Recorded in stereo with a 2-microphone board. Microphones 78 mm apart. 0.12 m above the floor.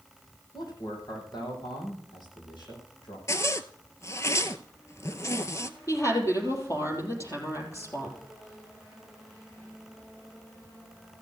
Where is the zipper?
40° left (ahead or behind), 0.7 m.